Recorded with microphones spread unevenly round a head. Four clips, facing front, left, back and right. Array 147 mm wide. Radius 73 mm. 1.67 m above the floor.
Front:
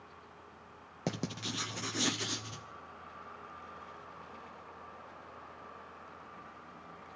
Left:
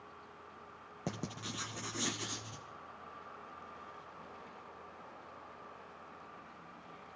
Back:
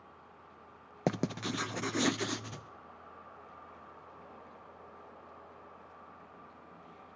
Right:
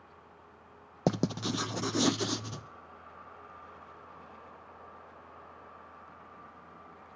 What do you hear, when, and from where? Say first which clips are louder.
1.1 s writing: right 13 dB, back 5 dB; 105° right, 0.6 m